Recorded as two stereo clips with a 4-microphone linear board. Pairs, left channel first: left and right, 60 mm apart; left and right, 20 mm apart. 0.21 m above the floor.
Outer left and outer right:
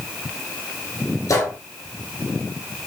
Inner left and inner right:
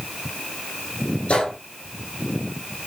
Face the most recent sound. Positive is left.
turn(degrees=70)  # may be behind; listen again after turning